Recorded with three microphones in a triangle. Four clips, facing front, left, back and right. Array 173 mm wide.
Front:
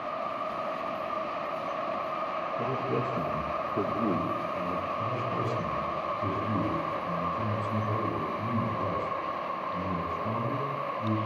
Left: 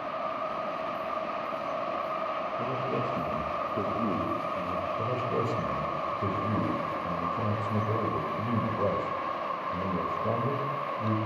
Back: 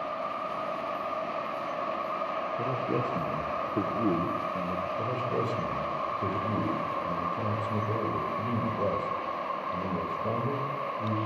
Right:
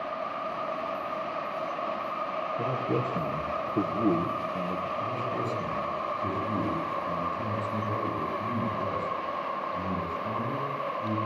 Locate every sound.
2.6 s a man speaking: 130° right, 6.5 m
5.0 s a man speaking: 135° left, 9.5 m